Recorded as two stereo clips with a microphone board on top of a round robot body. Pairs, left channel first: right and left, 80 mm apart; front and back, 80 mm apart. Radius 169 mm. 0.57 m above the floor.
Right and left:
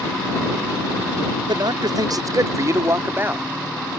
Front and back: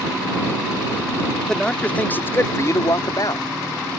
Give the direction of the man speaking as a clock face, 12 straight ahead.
9 o'clock.